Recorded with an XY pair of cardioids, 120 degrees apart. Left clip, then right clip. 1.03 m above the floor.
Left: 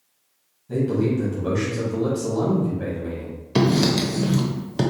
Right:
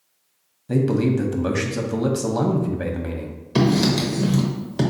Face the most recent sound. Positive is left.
turn(degrees=10)